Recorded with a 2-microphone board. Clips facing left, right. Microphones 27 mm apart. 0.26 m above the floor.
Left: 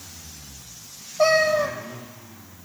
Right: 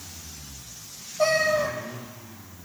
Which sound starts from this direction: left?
A cat meowing, at 1.2 s.